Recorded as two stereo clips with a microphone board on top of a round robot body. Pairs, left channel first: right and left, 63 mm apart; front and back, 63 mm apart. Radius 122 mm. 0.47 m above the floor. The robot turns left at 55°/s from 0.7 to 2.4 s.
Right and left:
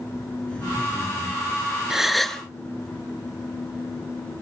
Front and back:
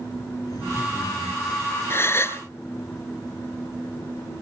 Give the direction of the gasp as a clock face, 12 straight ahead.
12 o'clock.